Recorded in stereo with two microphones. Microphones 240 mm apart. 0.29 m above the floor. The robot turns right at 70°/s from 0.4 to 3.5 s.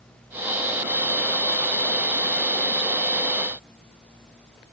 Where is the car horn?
I don't hear a car horn.